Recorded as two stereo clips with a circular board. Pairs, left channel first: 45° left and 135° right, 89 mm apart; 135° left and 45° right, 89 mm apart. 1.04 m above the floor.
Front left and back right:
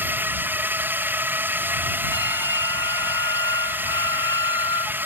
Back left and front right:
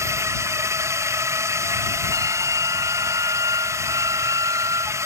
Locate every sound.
0.0 s a drone: 80° right
2.1 s a flute: straight ahead